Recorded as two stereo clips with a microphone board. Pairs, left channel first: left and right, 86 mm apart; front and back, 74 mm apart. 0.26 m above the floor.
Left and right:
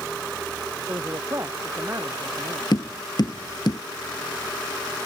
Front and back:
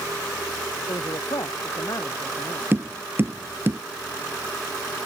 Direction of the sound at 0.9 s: 35° right.